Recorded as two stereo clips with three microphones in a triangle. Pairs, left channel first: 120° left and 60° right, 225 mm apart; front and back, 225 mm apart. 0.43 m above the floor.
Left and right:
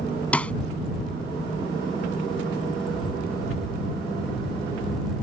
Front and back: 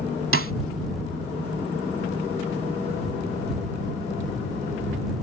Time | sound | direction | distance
0.3 | a snare drum | 155° right | ?